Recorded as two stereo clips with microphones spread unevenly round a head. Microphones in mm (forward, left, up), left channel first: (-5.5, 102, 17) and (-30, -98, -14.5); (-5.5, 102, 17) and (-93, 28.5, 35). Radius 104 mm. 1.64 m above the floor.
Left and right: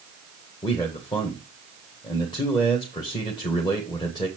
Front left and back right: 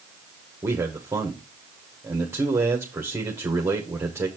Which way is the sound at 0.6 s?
150° left.